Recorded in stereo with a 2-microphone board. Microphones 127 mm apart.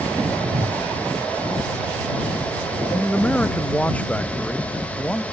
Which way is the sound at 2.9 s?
10° left (ahead or behind).